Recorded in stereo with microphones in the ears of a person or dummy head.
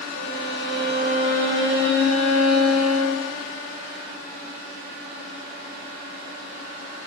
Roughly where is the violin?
Right.